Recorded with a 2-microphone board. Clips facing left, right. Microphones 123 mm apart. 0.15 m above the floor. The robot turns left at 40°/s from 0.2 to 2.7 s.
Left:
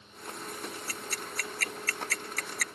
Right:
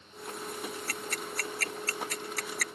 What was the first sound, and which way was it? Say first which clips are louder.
Ticking: right 2 dB; 60° right (ahead or behind).